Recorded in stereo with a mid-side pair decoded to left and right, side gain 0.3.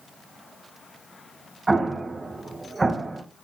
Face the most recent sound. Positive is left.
turn(degrees=-35)